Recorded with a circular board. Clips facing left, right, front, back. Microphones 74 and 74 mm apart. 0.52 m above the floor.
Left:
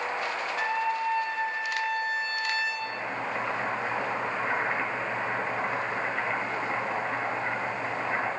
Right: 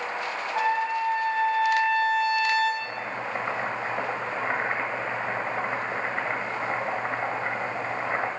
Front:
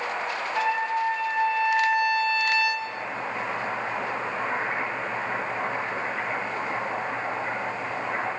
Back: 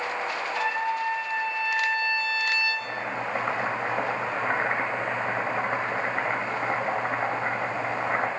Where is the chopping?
145° right, 1.6 m.